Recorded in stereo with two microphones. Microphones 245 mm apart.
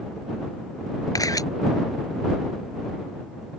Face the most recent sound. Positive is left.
turn(degrees=15)  # may be behind; listen again after turning